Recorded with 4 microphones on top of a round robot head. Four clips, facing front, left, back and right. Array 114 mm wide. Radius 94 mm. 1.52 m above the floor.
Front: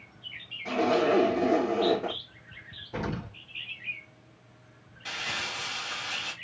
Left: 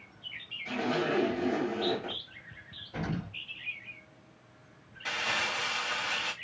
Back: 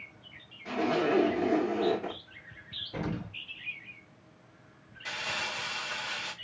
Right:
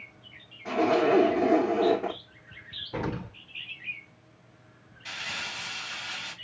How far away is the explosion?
About 1.8 m.